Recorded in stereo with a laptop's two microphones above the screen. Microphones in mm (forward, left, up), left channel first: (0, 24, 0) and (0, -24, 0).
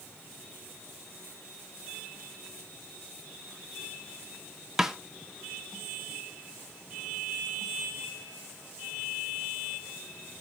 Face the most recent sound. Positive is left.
turn(degrees=-10)  # may be behind; listen again after turning